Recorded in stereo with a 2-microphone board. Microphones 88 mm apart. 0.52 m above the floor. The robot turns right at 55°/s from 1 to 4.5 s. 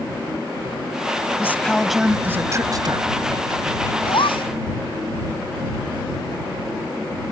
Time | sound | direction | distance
1.4 | a woman speaking | 150° left | ?
4.1 | a gasp | 65° left (ahead or behind) | ?